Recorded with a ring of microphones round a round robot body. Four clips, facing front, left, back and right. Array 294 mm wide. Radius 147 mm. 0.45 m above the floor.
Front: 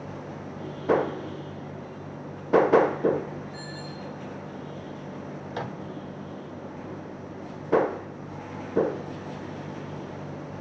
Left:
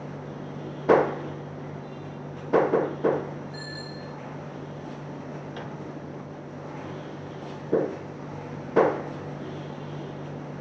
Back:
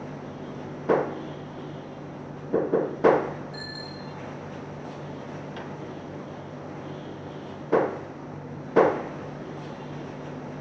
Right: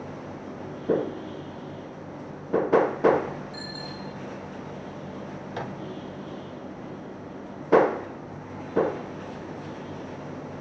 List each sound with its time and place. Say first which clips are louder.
3.5 s a bicycle bell: right 1 dB, even; 155° right, 5.5 m
5.5 s a microwave: right 3 dB, front 3 dB; 30° right, 0.8 m